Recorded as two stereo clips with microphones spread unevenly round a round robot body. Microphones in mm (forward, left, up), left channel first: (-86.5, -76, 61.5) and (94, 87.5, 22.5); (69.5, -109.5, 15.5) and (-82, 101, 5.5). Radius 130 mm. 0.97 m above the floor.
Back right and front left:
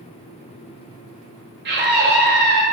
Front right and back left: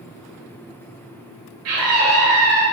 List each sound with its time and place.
1.6 s a scream: 90° left, 1.4 m